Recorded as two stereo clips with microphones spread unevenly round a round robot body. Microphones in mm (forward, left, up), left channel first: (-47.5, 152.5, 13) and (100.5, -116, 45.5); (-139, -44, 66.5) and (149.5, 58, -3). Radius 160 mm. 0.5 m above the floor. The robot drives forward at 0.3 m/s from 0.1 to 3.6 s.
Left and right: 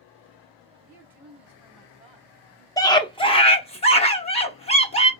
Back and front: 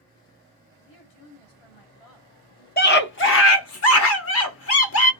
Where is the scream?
155° left, 0.8 m; by 5.1 s 165° left, 0.9 m.